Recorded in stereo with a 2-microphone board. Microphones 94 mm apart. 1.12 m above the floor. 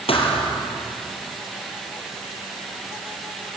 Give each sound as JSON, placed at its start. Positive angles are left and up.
{"t": 0.1, "sound": "a thud", "side_deg": 75, "distance_m": 4.0}